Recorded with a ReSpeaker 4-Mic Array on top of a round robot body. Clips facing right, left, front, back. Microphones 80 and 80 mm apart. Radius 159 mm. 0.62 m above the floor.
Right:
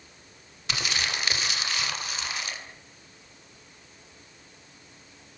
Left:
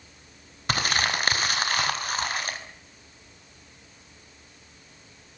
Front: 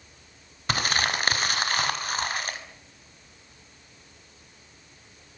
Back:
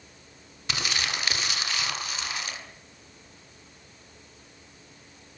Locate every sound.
0.7 s crumpling: 45° left, 4.5 m